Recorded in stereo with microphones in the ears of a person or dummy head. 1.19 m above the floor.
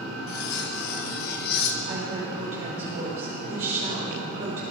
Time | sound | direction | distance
0.3 | cutlery clinking | 55° left (ahead or behind) | 1.0 m
1.9 | a woman speaking | 40° right (ahead or behind) | 5 m